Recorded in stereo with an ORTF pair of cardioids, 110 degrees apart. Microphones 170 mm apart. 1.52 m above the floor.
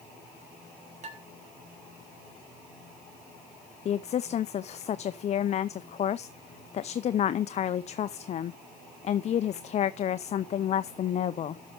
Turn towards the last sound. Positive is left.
turn(degrees=40)